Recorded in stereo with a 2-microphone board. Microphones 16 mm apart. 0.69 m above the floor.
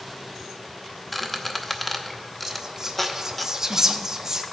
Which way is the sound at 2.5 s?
30° right (ahead or behind).